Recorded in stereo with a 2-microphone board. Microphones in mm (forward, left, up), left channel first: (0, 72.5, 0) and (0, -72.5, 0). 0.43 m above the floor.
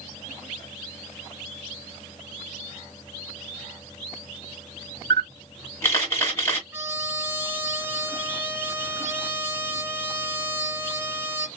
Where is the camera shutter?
20° left (ahead or behind), 2.5 m.